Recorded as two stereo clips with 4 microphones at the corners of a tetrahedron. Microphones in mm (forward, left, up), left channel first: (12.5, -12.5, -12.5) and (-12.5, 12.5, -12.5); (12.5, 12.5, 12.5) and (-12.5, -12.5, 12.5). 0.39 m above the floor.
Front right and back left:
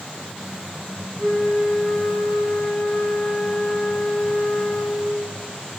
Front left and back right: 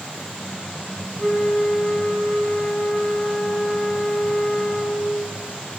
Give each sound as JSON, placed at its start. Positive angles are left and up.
{"t": 1.2, "sound": "a flute", "azimuth_deg": 0, "distance_m": 1.5}